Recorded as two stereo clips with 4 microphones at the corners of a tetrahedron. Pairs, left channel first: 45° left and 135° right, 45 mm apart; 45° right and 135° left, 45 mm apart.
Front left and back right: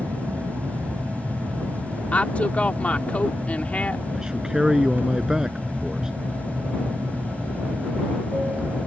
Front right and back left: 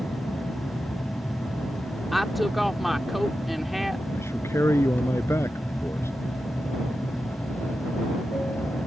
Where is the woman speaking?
50° left.